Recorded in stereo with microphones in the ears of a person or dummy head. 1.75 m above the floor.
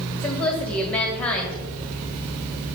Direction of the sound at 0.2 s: 10° left (ahead or behind).